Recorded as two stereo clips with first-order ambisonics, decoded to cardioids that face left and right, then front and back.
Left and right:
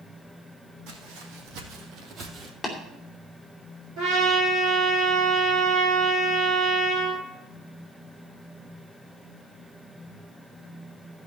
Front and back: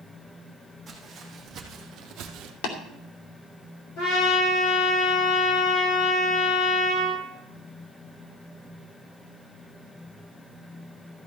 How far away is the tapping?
About 2.5 m.